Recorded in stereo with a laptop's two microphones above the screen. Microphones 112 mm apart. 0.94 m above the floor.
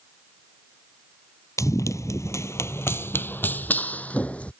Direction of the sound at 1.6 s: 30° left (ahead or behind).